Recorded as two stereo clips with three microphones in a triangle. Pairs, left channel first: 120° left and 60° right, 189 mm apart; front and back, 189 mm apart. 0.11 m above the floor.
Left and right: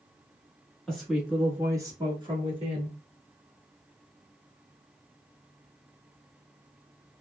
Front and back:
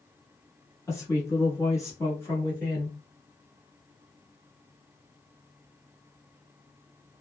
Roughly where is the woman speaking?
Ahead left.